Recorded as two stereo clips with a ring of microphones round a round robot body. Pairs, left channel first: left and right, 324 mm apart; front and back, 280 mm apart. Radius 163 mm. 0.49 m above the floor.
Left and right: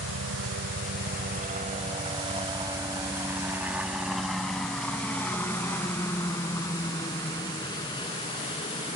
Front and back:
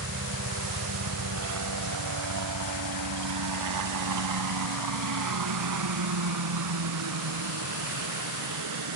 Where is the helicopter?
130° right; by 9.0 s 165° left.